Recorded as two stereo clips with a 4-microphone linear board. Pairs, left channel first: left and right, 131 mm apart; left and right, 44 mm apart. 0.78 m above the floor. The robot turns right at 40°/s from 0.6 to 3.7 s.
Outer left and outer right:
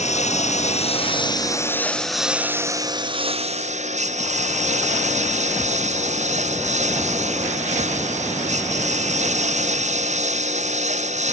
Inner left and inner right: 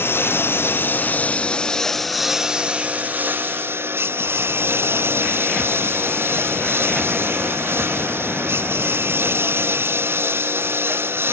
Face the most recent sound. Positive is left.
turn(degrees=-115)